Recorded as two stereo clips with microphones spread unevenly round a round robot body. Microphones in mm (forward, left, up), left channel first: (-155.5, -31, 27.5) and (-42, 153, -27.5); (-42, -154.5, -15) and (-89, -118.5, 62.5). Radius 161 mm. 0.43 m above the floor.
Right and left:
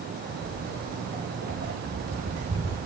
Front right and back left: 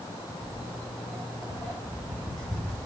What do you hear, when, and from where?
0.4 s footsteps: 35° left, 6 m; by 2.8 s 50° left, 5.5 m